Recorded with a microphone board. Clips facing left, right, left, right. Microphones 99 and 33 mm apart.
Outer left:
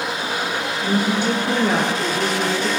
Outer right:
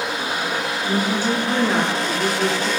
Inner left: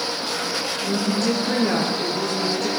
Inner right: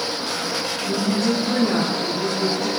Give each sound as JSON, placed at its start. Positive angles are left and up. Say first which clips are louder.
{"t": 0.8, "sound": "a woman speaking", "louder": "outer left 2 dB, inner right 1 dB", "side_deg": 65, "distance_m": 5.0}